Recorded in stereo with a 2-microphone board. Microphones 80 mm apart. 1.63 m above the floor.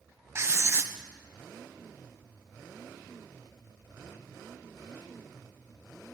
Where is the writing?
30° right (ahead or behind), 0.8 m.